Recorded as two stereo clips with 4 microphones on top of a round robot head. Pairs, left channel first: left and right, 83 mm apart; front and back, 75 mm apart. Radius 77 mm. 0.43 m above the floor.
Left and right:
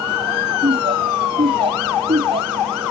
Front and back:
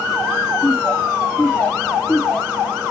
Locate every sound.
0.6 s laughter: 80° right; by 2.7 s 75° right